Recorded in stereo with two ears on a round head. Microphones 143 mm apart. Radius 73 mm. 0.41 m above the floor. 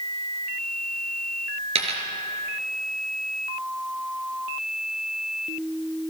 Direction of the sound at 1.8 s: 40° right (ahead or behind).